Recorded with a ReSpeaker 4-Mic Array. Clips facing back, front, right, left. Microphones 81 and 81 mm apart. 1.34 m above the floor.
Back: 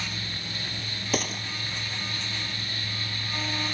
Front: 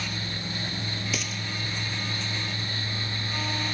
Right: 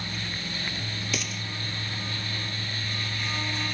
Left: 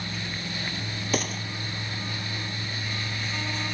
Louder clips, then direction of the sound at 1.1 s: Back 4 dB, left 8 dB; 135° left.